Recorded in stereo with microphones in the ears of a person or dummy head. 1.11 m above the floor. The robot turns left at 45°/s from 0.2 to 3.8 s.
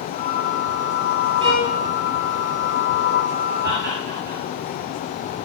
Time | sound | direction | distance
1.4 | a violin | 25° right (ahead or behind) | 9 m
3.6 | laughter | 60° right (ahead or behind) | 9.5 m